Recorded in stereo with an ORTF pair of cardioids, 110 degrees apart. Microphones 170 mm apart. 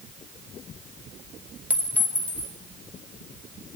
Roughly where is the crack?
No crack in this recording.